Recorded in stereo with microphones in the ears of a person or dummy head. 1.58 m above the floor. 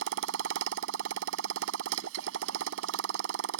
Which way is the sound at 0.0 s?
70° right (ahead or behind).